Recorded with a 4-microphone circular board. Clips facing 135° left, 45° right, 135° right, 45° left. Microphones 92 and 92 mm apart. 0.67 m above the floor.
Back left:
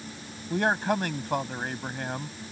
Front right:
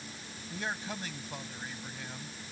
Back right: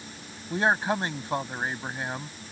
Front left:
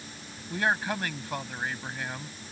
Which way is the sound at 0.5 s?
160° left.